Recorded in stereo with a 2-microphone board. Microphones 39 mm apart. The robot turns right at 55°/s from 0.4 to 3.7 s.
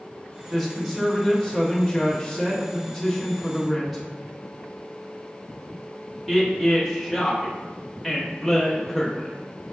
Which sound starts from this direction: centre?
A woman speaking, at 0.5 s.